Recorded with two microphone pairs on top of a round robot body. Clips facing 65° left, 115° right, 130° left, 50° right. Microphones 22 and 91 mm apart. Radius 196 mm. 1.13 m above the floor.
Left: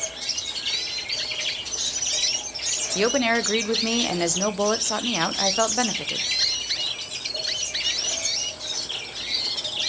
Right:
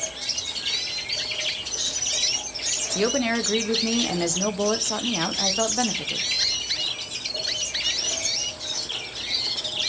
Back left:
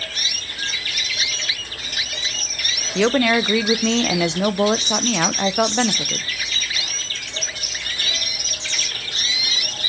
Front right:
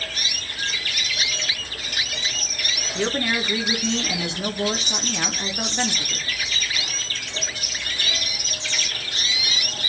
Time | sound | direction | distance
3.0 | a woman speaking | 140° left | 0.9 m